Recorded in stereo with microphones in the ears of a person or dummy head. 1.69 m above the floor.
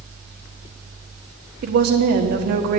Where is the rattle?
I don't hear a rattle.